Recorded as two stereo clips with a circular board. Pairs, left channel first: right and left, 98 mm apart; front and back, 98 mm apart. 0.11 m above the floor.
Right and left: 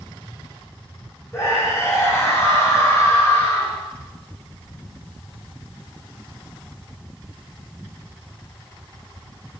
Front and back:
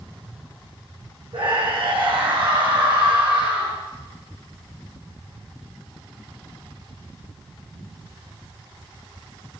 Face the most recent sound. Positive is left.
turn(degrees=-155)